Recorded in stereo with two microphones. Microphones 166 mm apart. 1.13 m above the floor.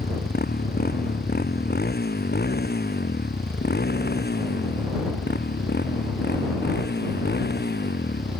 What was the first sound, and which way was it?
A motorcycle, 70° left (ahead or behind).